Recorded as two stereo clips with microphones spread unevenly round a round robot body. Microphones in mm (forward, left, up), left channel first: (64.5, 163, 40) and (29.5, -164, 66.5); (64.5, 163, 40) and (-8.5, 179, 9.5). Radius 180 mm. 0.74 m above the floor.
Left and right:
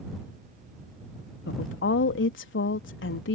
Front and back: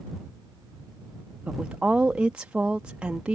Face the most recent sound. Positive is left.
turn(degrees=115)